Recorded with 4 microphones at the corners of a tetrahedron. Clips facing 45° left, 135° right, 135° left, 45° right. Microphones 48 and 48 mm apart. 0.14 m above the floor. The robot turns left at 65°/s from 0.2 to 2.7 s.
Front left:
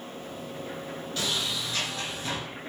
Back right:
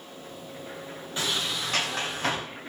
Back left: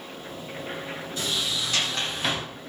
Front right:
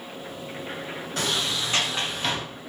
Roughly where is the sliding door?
Right.